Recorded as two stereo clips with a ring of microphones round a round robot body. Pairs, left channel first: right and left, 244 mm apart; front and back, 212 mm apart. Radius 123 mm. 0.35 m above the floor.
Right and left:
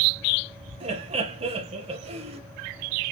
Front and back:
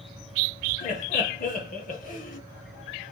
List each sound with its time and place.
0.8 s laughter: 35° left, 1.4 m